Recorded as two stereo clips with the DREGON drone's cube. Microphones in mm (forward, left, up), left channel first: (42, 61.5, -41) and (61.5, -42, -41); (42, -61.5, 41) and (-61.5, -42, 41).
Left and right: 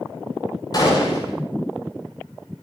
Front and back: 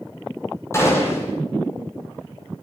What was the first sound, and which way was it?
A gunshot, 50° left.